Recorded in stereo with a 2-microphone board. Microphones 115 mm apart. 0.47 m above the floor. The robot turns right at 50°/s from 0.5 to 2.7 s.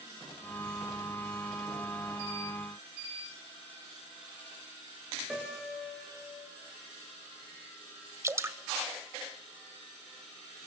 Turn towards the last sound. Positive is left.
turn(degrees=-25)  # may be behind; listen again after turning